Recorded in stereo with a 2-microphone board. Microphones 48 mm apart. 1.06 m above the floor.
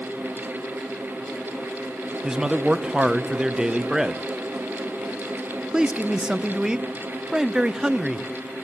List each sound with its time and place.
2.2 s a man speaking: 15° right (ahead or behind), 0.8 m